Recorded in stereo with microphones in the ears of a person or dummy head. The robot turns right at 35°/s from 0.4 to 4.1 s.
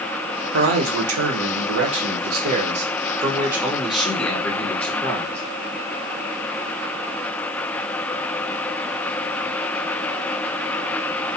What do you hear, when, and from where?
0.5 s a man speaking: 120° right, 0.8 m; by 5.4 s 5° left, 0.8 m